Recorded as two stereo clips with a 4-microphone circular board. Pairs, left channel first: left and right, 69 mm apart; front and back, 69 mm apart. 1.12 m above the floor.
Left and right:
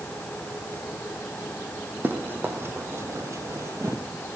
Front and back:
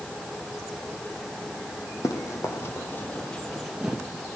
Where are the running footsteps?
35° right, 3 m; by 4.0 s 110° right, 1.8 m.